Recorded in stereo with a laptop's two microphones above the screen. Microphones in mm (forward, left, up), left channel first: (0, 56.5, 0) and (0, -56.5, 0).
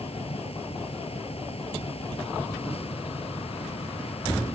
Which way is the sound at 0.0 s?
60° left (ahead or behind).